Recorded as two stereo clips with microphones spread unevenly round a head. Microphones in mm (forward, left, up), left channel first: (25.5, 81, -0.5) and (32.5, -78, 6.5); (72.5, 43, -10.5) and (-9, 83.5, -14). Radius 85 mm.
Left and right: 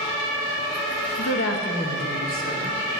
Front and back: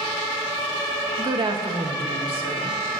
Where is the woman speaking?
105° left, 1.1 m; by 2.8 s 145° left, 3 m.